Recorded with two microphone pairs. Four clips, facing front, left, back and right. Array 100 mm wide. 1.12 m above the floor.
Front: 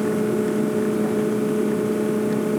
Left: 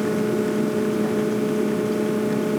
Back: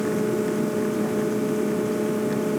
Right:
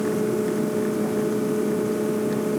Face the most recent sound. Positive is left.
No sound to turn to.